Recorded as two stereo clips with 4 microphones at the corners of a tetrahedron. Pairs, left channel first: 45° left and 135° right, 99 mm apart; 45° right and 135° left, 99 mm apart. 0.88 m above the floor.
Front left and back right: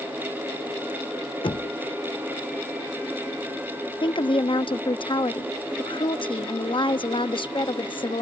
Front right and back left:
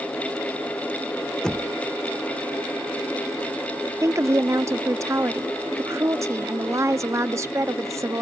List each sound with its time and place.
1.4 s knocking: 35° left
4.0 s a woman speaking: 75° left